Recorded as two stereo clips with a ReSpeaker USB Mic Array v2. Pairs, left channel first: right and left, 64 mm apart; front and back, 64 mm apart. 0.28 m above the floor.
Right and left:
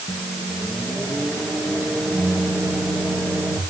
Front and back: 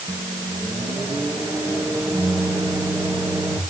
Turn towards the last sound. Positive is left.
turn(degrees=180)